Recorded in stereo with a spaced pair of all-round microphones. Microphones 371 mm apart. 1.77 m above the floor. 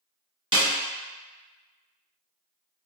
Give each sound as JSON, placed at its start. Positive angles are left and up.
{"t": 0.5, "sound": "a snare drum", "side_deg": -15, "distance_m": 1.0}